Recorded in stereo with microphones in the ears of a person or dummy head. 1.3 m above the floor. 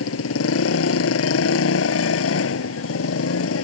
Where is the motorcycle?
85° left.